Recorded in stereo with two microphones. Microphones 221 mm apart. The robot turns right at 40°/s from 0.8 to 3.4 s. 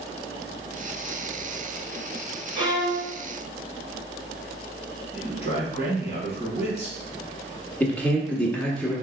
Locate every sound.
2.5 s a violin: 20° right (ahead or behind), 1.5 m
5.1 s a man speaking: 30° left (ahead or behind), 1.3 m
7.8 s a man speaking: 5° left (ahead or behind), 1.1 m